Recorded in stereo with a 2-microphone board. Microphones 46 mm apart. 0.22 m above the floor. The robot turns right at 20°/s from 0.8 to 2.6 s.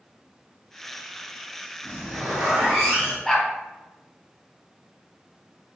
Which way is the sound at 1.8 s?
25° right (ahead or behind).